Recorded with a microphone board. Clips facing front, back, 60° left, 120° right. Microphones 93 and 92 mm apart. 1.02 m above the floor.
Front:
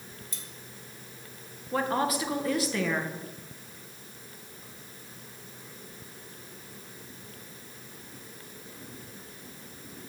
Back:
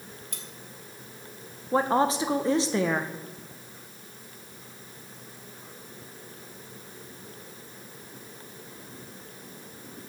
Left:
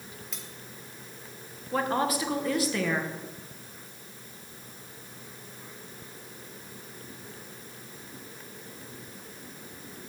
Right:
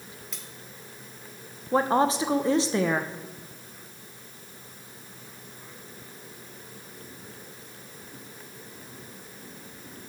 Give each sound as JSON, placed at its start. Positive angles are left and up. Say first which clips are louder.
{"t": 0.3, "sound": "cutlery clinking", "louder": "back 3 dB, left 1 dB", "azimuth_deg": 150, "distance_m": 1.2}
{"t": 1.7, "sound": "a woman speaking", "louder": "back 4 dB, right 5 dB", "azimuth_deg": -155, "distance_m": 0.7}